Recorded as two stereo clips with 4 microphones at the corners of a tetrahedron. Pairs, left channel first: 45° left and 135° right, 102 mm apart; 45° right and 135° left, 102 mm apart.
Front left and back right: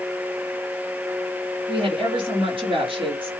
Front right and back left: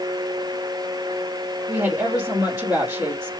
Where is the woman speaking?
145° right, 2 m.